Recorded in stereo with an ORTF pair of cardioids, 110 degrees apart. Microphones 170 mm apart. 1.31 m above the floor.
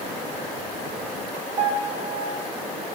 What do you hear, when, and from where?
1.6 s a piano: 50° right, 1.8 m